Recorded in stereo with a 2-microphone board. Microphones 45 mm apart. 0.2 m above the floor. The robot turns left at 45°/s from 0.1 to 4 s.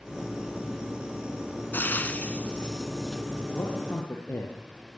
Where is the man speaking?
55° left (ahead or behind), 5 m; by 4.5 s 70° left (ahead or behind), 5 m.